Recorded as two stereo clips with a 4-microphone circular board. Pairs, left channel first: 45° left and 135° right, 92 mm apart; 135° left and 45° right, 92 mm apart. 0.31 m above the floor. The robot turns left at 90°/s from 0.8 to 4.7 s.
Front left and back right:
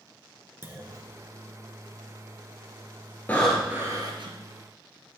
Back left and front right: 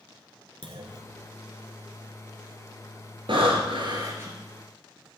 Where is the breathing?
25° right, 1.9 m; by 4.4 s 125° right, 1.9 m.